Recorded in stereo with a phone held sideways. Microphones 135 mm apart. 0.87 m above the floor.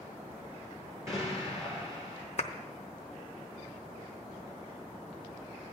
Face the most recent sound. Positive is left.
turn(degrees=55)  # may be behind; listen again after turning